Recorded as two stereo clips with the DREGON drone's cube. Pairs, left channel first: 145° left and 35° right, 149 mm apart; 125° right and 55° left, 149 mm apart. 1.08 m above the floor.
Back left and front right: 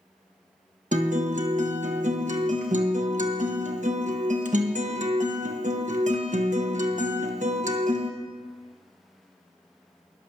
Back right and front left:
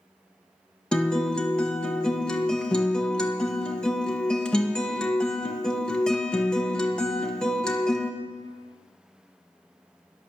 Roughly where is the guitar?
Ahead right.